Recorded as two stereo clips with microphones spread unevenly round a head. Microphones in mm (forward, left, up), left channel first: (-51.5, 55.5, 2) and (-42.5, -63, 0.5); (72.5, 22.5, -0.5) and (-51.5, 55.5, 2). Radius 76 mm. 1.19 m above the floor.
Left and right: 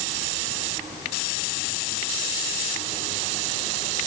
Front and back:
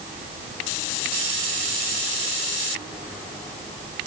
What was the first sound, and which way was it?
Only background noise.